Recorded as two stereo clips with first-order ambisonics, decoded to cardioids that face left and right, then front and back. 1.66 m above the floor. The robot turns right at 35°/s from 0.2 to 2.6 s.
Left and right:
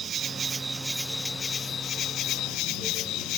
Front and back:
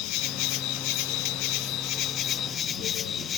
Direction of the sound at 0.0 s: 25° right.